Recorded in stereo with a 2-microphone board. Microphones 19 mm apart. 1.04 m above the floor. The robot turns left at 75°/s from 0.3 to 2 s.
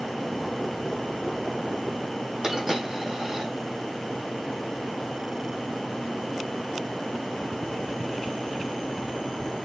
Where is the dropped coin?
30° right (ahead or behind), 4.5 m.